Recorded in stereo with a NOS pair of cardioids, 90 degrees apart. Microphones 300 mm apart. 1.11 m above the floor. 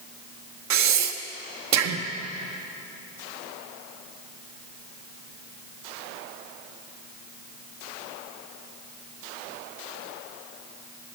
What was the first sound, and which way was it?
Breathing, 65° right.